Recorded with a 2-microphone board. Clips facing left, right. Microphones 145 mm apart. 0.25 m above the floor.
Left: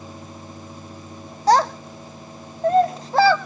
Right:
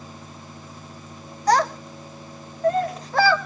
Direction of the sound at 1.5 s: 30° left (ahead or behind).